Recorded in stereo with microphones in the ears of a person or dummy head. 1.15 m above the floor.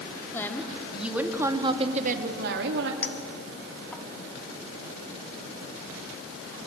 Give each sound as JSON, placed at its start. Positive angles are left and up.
{"t": 0.3, "sound": "a woman speaking", "side_deg": 10, "distance_m": 3.0}
{"t": 3.0, "sound": "a clink", "side_deg": 10, "distance_m": 2.0}